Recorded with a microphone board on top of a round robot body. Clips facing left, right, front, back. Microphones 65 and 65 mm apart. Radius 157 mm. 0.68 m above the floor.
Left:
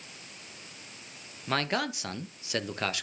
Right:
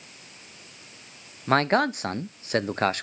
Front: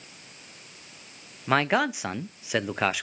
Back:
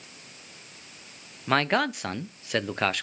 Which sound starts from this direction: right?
A man speaking, at 1.5 s.